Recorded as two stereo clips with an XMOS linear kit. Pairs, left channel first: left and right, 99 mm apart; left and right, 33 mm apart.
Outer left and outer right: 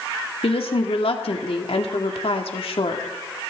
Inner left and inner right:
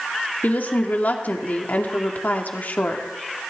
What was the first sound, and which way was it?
A woman speaking, 70° left (ahead or behind).